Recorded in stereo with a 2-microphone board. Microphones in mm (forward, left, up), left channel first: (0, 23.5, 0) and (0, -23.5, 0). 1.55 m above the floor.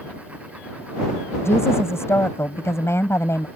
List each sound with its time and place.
1.4 s a woman speaking: 70° left (ahead or behind)